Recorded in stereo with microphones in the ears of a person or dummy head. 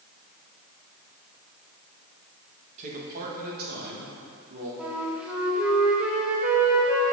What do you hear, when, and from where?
2.8 s a man speaking: 40° right (ahead or behind), 1.3 m; by 4.7 s 60° right (ahead or behind), 3 m
4.8 s a flute: 10° right (ahead or behind), 1.4 m